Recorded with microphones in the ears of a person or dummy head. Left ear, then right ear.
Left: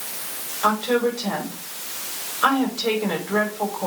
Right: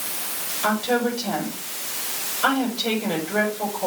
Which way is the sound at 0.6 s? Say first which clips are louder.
Left 2 dB; 65° left (ahead or behind).